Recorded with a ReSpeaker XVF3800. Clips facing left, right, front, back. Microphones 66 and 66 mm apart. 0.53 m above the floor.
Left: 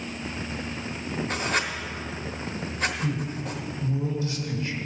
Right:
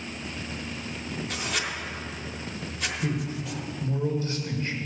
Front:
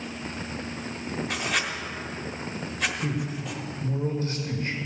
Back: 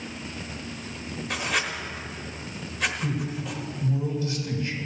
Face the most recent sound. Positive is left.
turn(degrees=-45)